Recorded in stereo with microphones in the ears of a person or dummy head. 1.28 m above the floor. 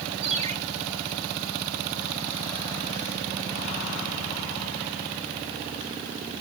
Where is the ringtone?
40° right (ahead or behind), 4 m.